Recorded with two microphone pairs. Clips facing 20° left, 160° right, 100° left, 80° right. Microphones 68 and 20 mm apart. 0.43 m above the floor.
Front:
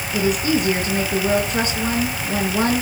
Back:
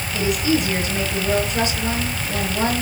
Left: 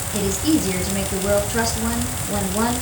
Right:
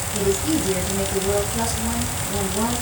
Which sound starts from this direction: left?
A woman speaking, at 0.1 s.